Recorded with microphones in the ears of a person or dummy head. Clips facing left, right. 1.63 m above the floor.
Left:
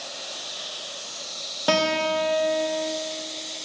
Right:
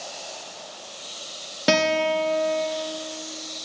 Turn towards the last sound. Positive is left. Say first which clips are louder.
# right 2 dB
turn(degrees=-25)  # may be behind; listen again after turning